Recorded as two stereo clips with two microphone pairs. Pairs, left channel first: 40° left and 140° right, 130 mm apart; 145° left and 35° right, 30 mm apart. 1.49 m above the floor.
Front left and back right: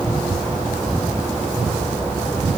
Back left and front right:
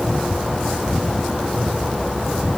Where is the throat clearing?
I don't hear throat clearing.